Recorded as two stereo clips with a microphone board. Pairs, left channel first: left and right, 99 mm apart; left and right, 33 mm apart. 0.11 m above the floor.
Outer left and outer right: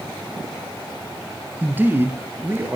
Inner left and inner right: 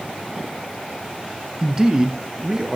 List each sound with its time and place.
1.6 s a man speaking: 20° right (ahead or behind), 1.2 m; by 2.8 s 25° right (ahead or behind), 1.4 m